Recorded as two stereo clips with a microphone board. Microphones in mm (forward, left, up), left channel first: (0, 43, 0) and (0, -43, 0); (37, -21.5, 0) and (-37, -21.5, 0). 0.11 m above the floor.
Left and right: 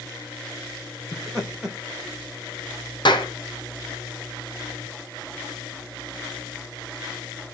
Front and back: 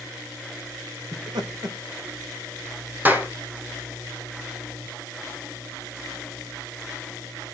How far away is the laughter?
About 5.5 m.